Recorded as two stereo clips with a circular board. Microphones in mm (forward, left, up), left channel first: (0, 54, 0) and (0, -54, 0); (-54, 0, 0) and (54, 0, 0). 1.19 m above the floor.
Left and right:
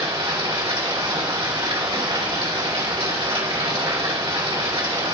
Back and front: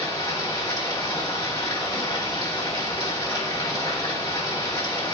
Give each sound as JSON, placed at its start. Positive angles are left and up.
{"t": 0.0, "sound": "running water", "azimuth_deg": -125, "distance_m": 2.5}